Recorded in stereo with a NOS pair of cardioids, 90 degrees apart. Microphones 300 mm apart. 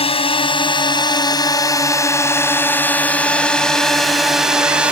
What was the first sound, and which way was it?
A drone, 20° left.